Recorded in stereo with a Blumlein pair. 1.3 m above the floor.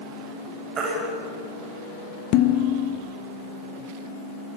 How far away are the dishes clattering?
About 1.5 m.